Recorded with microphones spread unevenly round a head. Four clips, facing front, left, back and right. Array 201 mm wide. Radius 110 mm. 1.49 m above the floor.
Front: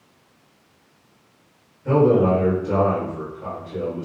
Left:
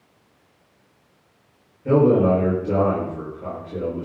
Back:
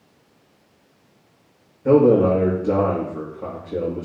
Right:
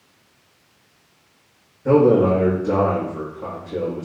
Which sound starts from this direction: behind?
A man speaking, at 1.9 s.